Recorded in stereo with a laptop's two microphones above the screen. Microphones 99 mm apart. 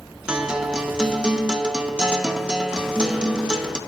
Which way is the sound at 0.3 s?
10° right (ahead or behind).